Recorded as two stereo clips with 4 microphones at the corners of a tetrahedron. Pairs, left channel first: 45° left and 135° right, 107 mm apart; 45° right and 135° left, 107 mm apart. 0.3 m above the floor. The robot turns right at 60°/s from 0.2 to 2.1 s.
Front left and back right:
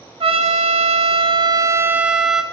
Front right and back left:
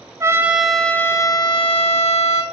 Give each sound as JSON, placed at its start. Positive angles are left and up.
{"t": 0.2, "sound": "a trumpet", "azimuth_deg": -165, "distance_m": 0.6}